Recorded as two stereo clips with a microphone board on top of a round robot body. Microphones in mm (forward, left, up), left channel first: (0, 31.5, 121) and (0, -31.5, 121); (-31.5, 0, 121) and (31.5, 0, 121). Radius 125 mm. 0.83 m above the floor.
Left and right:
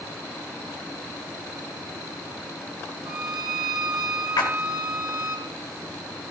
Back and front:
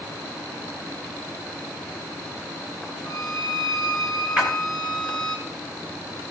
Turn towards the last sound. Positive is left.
turn(degrees=80)